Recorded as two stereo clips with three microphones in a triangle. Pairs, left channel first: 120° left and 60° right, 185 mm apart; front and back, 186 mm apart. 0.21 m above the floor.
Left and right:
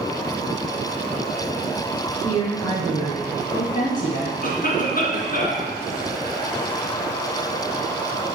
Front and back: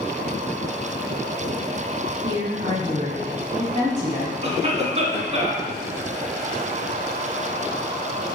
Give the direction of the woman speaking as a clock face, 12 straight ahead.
6 o'clock.